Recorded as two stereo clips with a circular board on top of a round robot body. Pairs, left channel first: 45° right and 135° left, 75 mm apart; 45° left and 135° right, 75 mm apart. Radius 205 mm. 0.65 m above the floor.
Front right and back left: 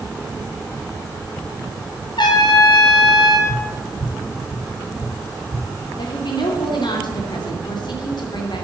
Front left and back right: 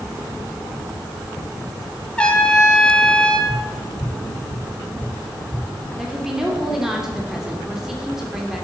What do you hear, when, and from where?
2.2 s a trumpet: 30° right, 4 m
3.5 s tapping: 120° left, 3.5 m
6.0 s a woman speaking: 50° right, 3 m